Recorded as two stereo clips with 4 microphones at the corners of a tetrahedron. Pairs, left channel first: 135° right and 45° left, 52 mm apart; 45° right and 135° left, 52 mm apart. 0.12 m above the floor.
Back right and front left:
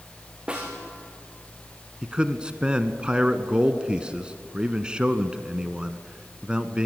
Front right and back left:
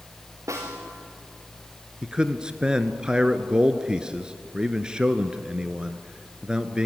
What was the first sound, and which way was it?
A snare drum, 115° left.